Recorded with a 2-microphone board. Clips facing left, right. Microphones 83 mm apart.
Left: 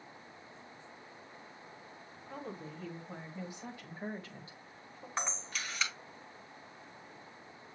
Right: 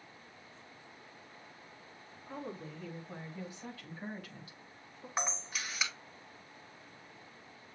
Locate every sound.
2.3 s a woman speaking: 5° right (ahead or behind), 1.9 m; by 5.1 s 40° left (ahead or behind), 1.6 m
5.2 s a camera shutter: 10° right (ahead or behind), 1.6 m